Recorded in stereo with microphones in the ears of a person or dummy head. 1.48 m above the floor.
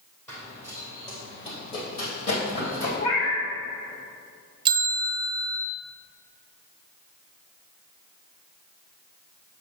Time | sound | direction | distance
0.3 | running footsteps | 10° left (ahead or behind) | 2 m
3.0 | a cat meowing | 30° left (ahead or behind) | 1.3 m
4.7 | a bell | 25° right (ahead or behind) | 0.6 m